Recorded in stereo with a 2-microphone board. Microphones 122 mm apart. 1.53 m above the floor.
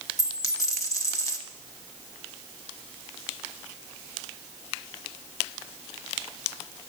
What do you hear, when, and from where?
0.2 s a dropped coin: 25° left (ahead or behind), 0.9 m